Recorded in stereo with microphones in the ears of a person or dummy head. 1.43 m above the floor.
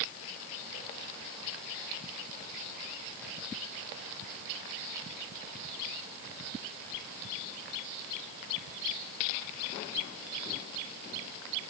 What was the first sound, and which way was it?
Only background noise.